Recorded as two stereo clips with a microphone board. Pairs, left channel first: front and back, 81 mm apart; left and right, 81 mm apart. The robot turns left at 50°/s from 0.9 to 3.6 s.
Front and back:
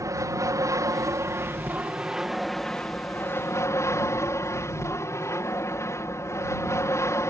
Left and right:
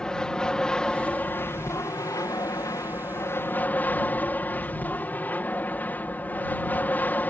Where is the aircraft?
165° left; by 7.3 s 30° left.